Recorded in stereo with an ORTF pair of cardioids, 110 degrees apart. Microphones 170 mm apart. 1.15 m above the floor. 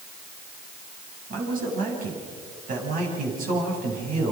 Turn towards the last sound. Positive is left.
turn(degrees=-55)